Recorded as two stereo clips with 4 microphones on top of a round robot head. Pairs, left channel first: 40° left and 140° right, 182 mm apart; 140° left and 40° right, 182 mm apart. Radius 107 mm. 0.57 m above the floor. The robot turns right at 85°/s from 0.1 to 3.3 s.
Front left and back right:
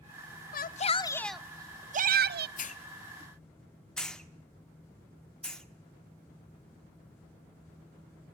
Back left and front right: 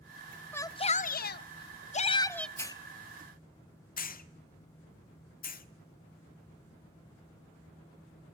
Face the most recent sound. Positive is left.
turn(degrees=125)